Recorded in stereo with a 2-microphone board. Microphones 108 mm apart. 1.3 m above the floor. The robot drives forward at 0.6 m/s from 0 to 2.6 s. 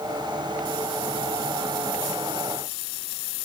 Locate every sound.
Only background noise.